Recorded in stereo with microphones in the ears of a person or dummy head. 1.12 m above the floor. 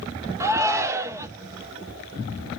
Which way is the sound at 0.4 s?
15° right (ahead or behind).